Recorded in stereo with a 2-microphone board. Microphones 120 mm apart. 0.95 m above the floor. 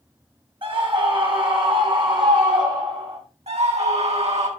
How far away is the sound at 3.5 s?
About 8 m.